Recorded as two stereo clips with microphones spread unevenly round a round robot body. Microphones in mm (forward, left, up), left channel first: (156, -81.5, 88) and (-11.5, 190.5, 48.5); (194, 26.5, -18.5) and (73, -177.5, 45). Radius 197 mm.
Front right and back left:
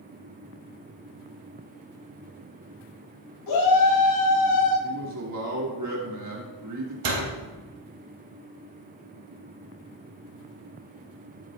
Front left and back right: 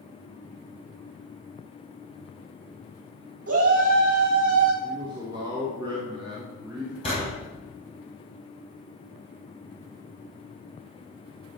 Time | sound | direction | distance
3.5 | a shout | 95° right | 6 m
4.8 | a man speaking | 155° left | 2.5 m
7.0 | a door slam | 135° left | 3.5 m